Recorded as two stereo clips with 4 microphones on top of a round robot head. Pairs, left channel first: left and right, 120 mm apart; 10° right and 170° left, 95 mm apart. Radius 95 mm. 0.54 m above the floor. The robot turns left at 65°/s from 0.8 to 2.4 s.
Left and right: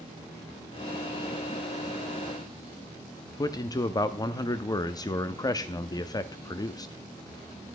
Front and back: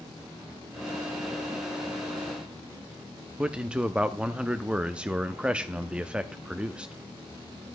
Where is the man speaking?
100° left, 0.6 m.